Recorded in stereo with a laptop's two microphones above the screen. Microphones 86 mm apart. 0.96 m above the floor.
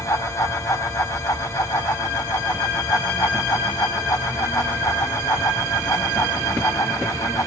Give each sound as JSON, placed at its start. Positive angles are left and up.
{"t": 0.0, "sound": "a fan", "side_deg": 40, "distance_m": 1.9}